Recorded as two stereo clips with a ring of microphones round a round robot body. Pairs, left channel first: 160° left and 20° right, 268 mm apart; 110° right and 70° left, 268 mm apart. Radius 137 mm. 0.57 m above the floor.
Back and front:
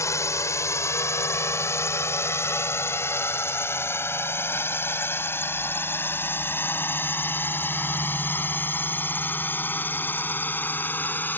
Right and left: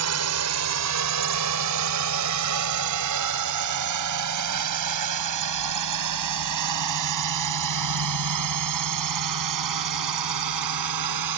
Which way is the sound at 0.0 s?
80° left.